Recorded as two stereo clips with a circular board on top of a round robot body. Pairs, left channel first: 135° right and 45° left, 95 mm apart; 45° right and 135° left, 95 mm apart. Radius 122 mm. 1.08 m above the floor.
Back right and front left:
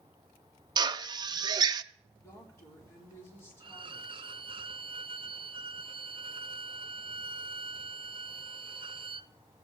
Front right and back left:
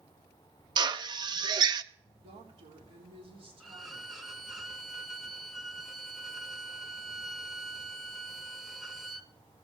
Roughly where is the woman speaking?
Behind.